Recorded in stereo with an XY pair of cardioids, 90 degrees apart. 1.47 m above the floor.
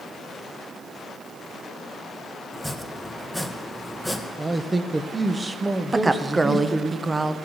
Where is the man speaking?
25° right, 1.3 m.